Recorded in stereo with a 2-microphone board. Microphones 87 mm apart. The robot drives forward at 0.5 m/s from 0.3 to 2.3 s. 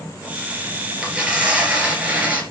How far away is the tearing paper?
About 3.5 m.